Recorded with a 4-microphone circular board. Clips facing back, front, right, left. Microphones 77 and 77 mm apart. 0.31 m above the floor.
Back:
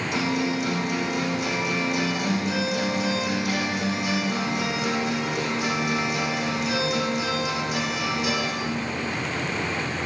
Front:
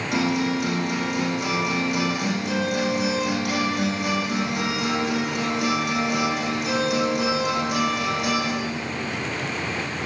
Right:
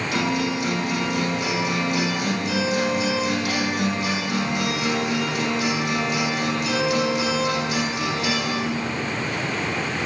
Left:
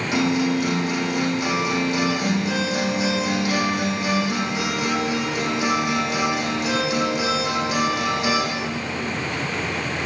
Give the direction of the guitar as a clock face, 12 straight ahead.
11 o'clock.